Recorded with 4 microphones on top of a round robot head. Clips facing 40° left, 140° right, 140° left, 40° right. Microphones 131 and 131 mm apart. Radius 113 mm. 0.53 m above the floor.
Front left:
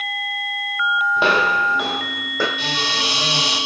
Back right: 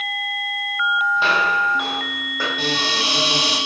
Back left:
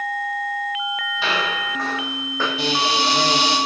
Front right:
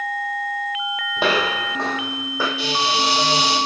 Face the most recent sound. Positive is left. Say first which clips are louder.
# back right 2 dB, back left 2 dB
turn(degrees=175)